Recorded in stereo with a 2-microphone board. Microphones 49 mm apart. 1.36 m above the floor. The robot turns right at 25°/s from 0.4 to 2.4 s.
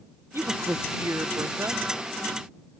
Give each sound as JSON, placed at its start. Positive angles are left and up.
{"t": 0.3, "sound": "a woman speaking", "azimuth_deg": -120}